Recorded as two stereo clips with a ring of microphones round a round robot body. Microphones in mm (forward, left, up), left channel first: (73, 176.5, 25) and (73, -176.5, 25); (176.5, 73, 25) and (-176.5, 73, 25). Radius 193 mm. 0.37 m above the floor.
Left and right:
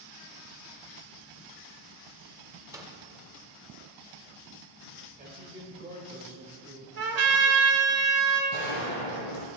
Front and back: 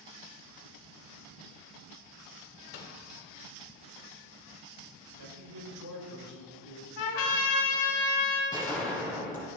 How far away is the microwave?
About 1.5 m.